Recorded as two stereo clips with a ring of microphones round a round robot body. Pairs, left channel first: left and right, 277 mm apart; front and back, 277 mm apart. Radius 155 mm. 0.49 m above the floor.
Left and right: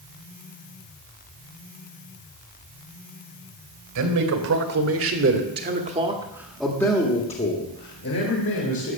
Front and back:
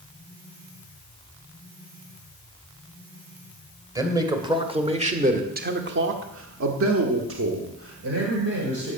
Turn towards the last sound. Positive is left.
turn(degrees=125)